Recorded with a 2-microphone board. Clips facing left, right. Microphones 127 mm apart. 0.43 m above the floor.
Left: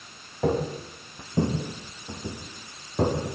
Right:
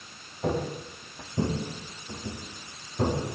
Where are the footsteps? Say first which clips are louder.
Left 4 dB; 70° left (ahead or behind), 7 m; by 3.3 s 80° left, 8 m.